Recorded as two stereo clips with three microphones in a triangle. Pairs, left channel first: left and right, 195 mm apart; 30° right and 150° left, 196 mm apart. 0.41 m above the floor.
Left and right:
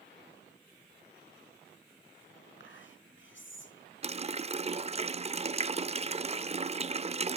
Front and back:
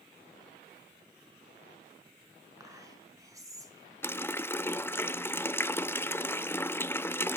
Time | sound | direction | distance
2.6 | whispering | 75° left | 5.5 m
4.0 | a running tap | 100° right | 0.6 m